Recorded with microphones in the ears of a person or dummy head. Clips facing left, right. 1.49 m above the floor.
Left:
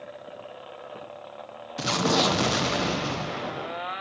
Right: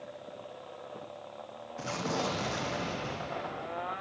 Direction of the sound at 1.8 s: 75° left (ahead or behind).